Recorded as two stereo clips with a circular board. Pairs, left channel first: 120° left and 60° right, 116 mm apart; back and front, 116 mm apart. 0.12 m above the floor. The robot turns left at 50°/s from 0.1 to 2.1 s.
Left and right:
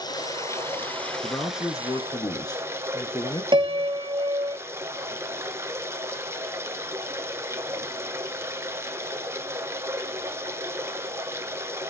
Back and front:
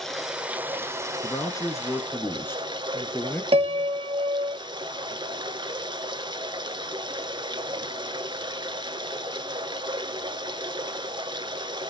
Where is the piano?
25° right, 0.6 m.